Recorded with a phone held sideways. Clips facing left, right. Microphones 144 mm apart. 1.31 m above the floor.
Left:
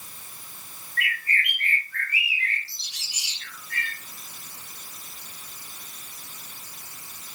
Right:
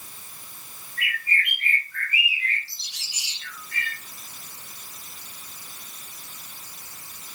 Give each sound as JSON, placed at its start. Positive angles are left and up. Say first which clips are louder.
{"t": 1.0, "sound": "a bird", "louder": "even", "side_deg": 85, "distance_m": 4.5}